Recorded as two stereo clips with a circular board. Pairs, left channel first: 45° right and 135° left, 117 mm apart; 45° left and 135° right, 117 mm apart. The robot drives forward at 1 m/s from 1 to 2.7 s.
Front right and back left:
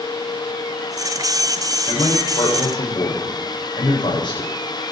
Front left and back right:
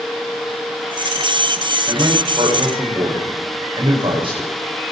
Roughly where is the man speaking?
Right.